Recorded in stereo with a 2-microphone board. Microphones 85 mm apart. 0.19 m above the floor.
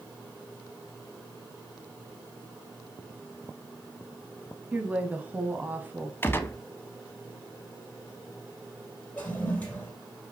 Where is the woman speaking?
15° right (ahead or behind), 1.1 m; by 6.1 s 20° right (ahead or behind), 1.2 m.